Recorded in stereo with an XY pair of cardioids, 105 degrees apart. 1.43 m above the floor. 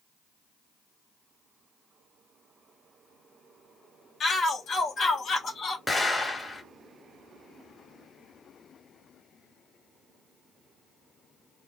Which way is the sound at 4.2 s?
50° left.